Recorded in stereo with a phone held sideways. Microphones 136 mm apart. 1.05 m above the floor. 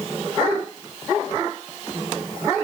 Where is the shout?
No shout in this recording.